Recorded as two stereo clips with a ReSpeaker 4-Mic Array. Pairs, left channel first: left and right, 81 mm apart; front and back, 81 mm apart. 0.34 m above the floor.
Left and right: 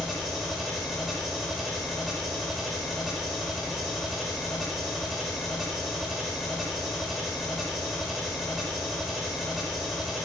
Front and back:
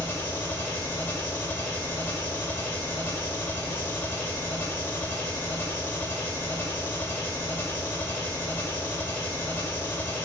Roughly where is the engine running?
Ahead.